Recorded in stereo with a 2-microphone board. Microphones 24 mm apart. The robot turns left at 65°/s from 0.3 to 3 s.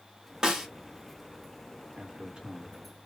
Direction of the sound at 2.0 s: 80° right.